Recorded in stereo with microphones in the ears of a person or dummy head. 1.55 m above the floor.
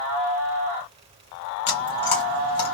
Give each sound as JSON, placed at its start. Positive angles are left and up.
{"t": 1.7, "sound": "chewing", "side_deg": 25, "distance_m": 1.0}